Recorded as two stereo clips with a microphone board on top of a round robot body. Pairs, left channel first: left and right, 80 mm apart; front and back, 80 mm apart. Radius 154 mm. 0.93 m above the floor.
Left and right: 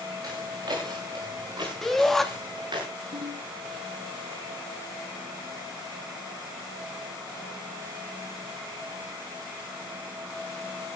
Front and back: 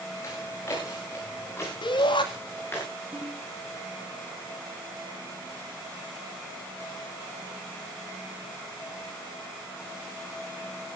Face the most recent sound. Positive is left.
turn(degrees=-110)